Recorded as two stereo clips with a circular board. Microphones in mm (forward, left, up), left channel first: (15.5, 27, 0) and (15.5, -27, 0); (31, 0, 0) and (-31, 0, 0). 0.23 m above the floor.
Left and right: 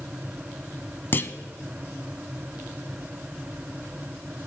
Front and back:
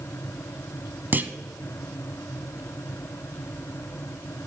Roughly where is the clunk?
Behind left.